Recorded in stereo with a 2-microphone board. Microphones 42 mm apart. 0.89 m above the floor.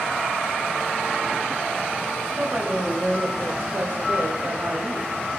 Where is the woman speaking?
35° right (ahead or behind), 1.8 m; by 5.3 s 40° right (ahead or behind), 1.1 m.